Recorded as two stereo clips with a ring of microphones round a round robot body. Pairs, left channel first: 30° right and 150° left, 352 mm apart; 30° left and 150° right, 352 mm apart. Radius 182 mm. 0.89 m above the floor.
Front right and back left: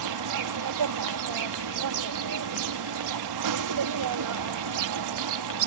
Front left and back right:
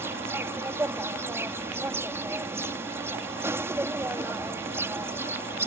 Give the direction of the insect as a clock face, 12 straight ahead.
8 o'clock.